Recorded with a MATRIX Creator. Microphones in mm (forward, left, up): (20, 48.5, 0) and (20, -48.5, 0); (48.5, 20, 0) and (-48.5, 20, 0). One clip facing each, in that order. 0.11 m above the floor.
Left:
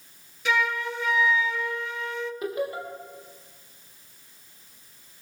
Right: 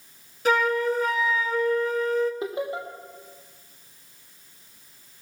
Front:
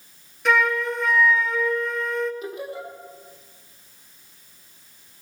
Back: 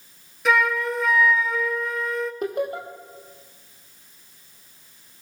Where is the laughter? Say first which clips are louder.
Even, back 6 dB; 155° right, 4 m.